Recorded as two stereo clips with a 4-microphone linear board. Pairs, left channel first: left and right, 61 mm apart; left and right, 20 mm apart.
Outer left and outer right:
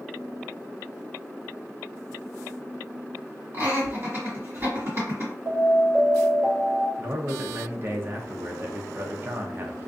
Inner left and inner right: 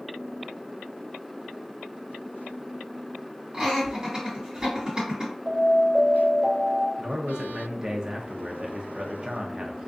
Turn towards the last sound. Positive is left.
turn(degrees=-40)  # may be behind; listen again after turning